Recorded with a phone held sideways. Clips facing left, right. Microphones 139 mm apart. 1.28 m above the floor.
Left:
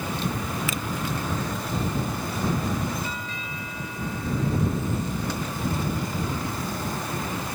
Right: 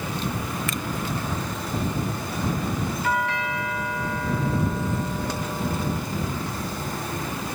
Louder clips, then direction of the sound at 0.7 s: Even; centre (ahead or behind).